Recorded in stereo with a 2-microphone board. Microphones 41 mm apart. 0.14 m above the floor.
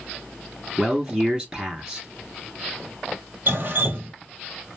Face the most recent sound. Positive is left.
turn(degrees=-50)  # may be behind; listen again after turning